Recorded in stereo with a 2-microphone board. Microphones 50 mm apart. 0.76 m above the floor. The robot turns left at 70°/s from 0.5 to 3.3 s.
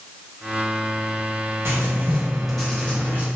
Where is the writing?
120° right, 1.3 m; by 3.2 s 130° left, 1.3 m.